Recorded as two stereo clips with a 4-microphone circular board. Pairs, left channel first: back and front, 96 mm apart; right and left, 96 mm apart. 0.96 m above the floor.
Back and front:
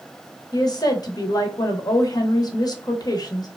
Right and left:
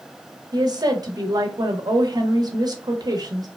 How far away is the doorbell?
No doorbell in this recording.